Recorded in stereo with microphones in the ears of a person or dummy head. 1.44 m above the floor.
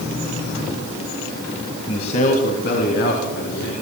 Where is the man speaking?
30° left (ahead or behind), 1.6 m; by 3.7 s 60° left (ahead or behind), 4 m.